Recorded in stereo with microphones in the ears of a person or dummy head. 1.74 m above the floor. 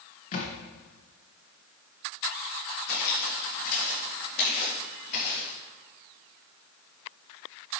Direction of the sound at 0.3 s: 40° left (ahead or behind).